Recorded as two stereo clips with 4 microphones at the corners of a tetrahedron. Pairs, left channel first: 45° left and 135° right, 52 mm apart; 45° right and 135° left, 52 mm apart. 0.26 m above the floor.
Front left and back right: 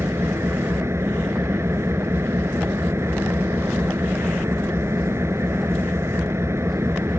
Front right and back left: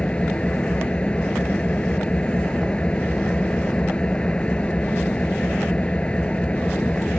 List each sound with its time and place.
0.0 s an engine running: 110° right